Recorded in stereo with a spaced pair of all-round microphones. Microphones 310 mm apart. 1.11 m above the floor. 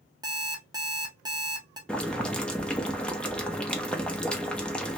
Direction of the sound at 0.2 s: 15° right (ahead or behind).